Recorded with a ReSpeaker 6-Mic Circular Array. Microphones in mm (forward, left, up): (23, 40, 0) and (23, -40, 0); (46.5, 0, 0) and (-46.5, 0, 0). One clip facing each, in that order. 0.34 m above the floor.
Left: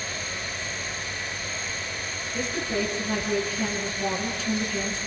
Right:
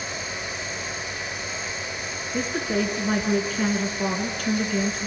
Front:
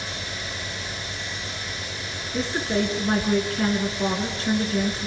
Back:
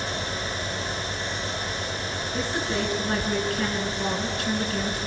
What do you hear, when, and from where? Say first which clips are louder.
2.3 s a woman speaking: right 3 dB, front 4 dB; 55° right, 4.5 m